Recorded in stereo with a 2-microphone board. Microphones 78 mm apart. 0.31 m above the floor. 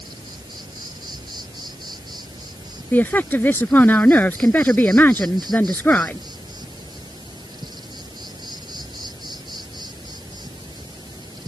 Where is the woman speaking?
25° left (ahead or behind).